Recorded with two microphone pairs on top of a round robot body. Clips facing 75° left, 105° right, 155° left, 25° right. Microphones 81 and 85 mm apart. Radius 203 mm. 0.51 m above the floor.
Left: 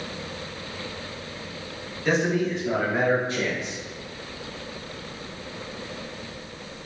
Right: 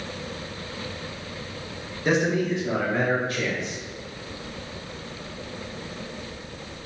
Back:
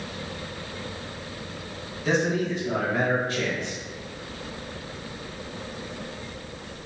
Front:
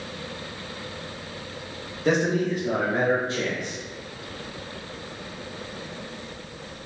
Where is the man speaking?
40° right, 1.6 m; by 3.8 s 50° left, 1.3 m.